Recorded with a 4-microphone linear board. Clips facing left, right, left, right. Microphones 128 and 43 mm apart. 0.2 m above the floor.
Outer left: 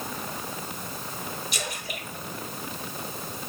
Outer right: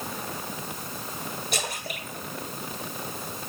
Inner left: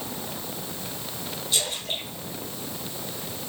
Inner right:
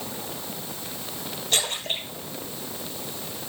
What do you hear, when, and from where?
1.5 s a splash: 60° right (ahead or behind), 5 m